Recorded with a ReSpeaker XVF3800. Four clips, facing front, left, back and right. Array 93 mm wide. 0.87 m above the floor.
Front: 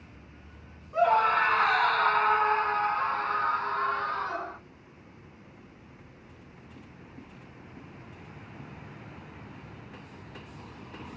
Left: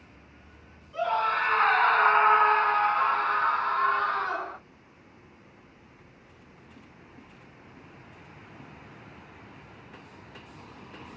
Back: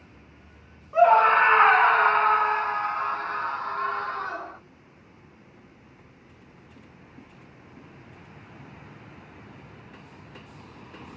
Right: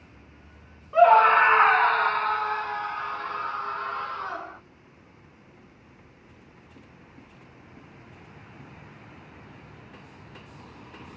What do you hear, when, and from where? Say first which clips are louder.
0.9 s a scream: right 11 dB, back 6 dB; 115° right, 1.1 m; by 4.6 s 90° left, 3 m